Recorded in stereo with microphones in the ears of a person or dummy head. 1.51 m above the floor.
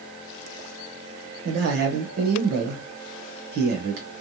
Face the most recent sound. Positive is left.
turn(degrees=-55)  # may be behind; listen again after turning